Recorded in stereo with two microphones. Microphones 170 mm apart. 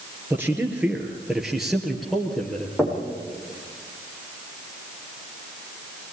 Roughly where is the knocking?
Centre.